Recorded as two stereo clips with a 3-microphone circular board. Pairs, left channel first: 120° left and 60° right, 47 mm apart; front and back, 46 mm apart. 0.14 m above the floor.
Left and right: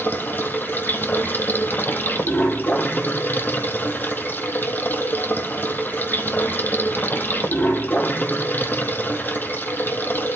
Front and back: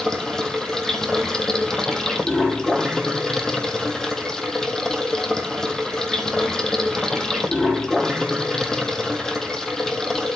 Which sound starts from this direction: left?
Running water, at 0.0 s.